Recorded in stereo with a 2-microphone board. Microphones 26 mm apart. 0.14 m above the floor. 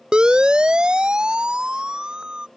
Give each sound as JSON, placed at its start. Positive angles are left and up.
{"t": 0.1, "sound": "a siren", "side_deg": -40}